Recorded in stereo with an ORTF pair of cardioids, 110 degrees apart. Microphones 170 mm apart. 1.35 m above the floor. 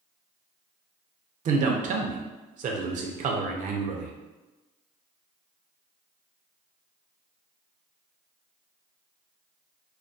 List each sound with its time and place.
1.4 s a man speaking: 50° right, 0.5 m